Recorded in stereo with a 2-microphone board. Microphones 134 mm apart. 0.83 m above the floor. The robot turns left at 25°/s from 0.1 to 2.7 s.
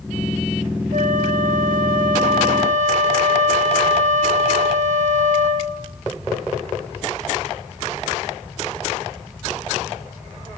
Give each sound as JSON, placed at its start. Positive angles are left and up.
{"t": 0.9, "sound": "a flute", "azimuth_deg": -70, "distance_m": 1.2}